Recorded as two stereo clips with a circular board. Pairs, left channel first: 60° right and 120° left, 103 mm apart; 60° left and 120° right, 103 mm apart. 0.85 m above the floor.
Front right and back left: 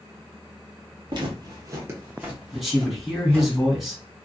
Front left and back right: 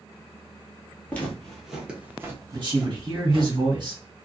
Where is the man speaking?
150° right, 1.6 m.